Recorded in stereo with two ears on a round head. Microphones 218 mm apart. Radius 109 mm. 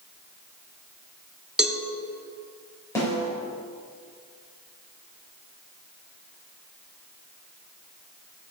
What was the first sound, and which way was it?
A cowbell, 5° right (ahead or behind).